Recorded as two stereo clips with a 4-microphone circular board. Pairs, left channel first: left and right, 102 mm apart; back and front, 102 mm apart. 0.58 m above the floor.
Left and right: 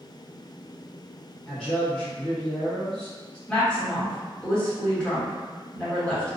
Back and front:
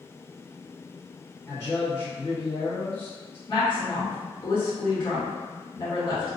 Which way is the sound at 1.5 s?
165° left.